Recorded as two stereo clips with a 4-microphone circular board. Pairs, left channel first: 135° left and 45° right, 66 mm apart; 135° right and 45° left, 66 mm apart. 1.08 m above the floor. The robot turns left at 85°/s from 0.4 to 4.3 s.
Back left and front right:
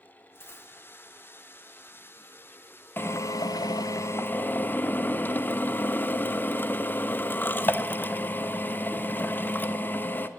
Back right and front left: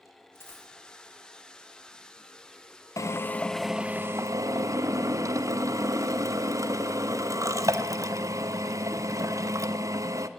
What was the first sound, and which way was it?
A dropped coin, straight behind.